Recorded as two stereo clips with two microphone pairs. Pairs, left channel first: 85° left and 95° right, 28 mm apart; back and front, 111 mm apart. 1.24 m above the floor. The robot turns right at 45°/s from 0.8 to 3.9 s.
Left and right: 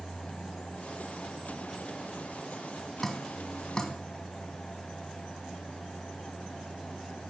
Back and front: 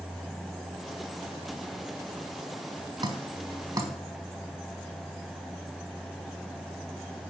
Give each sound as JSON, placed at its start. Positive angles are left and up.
{"t": 3.0, "sound": "dripping", "azimuth_deg": 0, "distance_m": 1.4}